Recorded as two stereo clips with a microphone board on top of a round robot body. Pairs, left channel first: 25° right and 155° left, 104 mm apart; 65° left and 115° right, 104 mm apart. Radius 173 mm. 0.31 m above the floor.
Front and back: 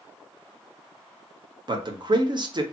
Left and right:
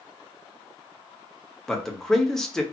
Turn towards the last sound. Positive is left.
turn(degrees=150)